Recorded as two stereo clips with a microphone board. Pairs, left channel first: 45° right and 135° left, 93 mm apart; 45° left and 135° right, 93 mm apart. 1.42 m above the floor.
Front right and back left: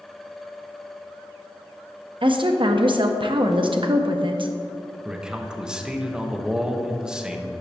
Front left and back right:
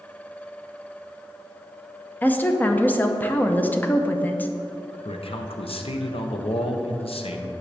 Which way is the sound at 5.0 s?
50° left.